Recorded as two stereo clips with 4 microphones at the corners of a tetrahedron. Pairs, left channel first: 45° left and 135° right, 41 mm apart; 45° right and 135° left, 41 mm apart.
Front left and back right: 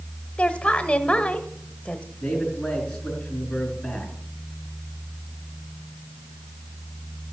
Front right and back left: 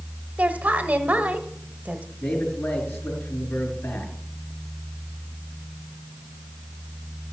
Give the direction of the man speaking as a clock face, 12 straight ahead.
1 o'clock.